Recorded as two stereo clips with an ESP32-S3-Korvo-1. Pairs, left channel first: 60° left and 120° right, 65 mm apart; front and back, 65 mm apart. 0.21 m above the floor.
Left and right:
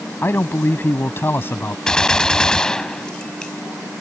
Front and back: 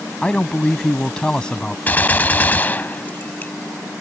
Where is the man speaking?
65° left.